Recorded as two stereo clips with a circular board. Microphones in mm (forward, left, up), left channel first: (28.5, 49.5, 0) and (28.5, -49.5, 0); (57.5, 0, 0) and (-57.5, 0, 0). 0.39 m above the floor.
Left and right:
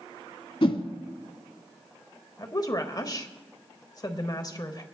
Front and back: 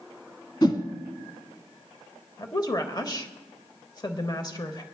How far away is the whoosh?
About 1.0 m.